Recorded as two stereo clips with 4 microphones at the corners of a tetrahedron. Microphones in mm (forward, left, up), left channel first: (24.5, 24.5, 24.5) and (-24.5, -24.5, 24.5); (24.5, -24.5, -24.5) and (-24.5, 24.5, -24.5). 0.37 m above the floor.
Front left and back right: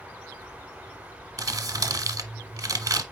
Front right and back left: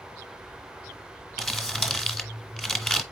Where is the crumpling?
125° right, 1.1 m.